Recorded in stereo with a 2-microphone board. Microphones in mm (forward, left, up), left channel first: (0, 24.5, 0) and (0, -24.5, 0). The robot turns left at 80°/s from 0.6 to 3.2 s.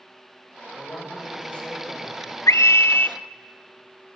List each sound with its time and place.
0.7 s a man speaking: 90° left, 5.5 m; by 2.4 s 40° right, 5.5 m
2.5 s a scream: 95° left, 0.9 m; by 3.2 s 35° left, 0.9 m